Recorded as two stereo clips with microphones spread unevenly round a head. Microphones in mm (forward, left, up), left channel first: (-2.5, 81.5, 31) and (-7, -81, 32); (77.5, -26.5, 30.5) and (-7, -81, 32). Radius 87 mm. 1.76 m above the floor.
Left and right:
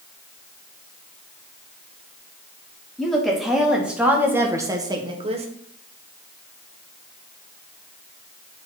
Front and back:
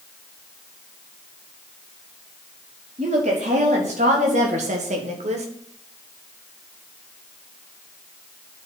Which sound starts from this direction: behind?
A woman speaking, at 3.0 s.